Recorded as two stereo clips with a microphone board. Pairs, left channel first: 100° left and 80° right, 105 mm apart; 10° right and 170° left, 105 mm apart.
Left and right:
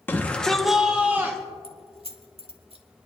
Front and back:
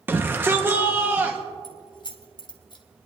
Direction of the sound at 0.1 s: 130° left.